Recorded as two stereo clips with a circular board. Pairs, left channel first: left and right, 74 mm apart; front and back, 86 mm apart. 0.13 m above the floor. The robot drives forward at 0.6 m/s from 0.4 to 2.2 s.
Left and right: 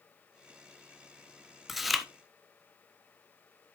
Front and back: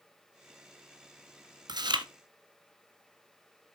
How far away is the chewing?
About 0.9 m.